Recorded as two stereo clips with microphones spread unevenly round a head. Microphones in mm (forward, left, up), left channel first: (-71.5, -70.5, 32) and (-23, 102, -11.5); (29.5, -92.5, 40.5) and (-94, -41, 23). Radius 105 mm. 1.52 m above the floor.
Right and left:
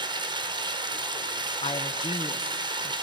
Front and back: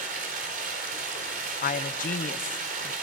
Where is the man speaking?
35° right, 0.8 m.